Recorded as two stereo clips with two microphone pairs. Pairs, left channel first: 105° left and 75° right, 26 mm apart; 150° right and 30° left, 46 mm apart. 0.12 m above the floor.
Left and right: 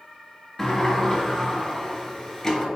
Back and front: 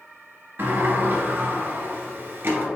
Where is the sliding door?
35° left, 0.9 m.